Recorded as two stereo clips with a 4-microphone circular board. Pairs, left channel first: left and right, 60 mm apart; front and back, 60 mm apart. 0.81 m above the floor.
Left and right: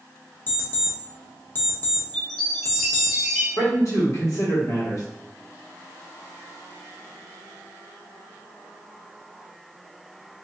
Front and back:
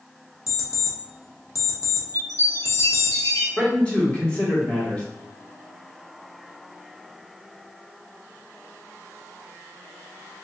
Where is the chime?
5° left, 1.3 m.